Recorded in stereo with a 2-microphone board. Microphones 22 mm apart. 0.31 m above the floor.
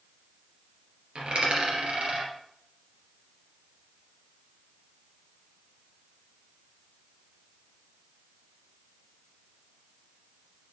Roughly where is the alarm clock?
I don't hear an alarm clock.